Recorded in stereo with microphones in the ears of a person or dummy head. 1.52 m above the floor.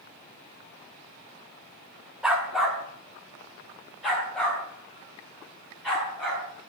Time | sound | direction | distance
2.2 | a dog barking | 5° right (ahead or behind) | 1.3 m